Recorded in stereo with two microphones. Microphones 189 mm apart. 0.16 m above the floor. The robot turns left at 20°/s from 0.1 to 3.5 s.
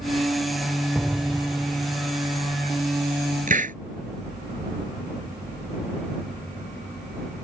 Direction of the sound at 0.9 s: 5° left (ahead or behind).